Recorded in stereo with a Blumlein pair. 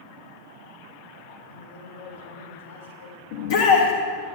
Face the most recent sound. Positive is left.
turn(degrees=55)